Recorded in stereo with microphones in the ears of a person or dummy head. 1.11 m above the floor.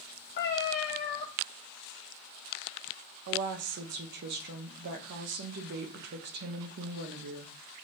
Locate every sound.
0.4 s a cat meowing: 55° left (ahead or behind), 1.0 m
3.3 s a woman speaking: 60° right (ahead or behind), 0.6 m